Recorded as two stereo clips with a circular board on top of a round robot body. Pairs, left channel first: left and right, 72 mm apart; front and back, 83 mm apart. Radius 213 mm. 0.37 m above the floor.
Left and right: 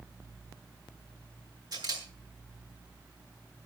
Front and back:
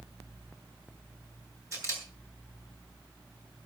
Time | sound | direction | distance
1.7 | a camera shutter | 125° right | 7.5 m